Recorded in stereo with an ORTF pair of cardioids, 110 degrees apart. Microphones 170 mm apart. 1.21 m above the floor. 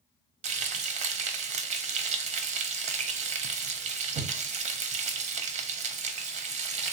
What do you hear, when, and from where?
0.4 s frying: 40° right, 0.6 m